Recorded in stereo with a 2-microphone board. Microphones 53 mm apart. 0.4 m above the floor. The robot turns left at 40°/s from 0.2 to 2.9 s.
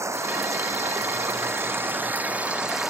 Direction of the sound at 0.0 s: 70° right.